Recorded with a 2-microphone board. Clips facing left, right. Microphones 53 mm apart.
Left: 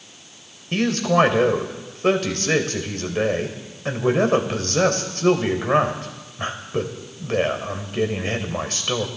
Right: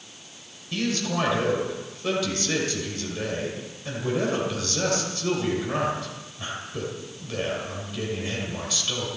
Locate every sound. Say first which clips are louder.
0.7 s a man speaking: left 8 dB; 50° left (ahead or behind), 2.5 m